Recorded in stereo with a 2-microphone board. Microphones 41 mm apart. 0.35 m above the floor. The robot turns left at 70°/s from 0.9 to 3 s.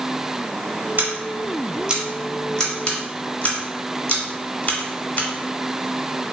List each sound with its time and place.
1.0 s scissors: 50° right (ahead or behind), 1.4 m; by 5.3 s 35° left (ahead or behind), 1.4 m